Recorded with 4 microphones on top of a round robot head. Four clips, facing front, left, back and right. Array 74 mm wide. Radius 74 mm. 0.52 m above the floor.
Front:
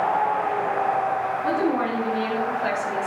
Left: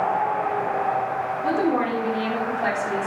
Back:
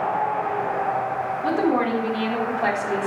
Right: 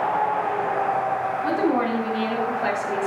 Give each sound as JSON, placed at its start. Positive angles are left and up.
{"t": 1.4, "sound": "a woman speaking", "azimuth_deg": 150, "distance_m": 5.5}